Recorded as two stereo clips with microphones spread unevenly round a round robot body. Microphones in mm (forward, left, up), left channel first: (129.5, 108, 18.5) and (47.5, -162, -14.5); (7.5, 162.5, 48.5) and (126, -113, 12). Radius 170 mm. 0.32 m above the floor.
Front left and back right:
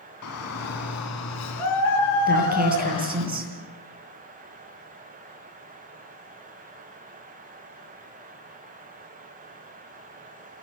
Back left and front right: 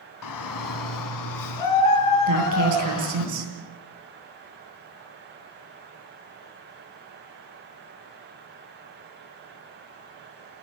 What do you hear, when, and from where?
0.2 s a shout: 120° left, 2.5 m; by 3.3 s 105° left, 3.5 m
2.3 s a woman speaking: 50° right, 8.5 m